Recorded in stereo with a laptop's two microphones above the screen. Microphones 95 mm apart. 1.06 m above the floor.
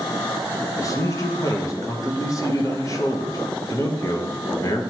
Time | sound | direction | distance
0.8 | a man speaking | 35° left (ahead or behind) | 0.9 m